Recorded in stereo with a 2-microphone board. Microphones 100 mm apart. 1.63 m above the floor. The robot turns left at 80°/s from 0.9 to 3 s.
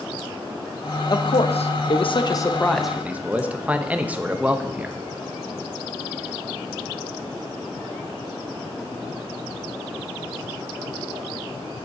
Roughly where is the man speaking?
Behind left.